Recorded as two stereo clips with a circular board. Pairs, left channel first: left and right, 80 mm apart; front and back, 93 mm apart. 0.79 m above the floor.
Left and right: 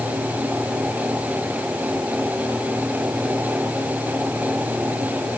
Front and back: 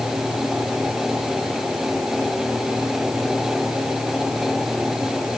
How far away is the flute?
No flute in this recording.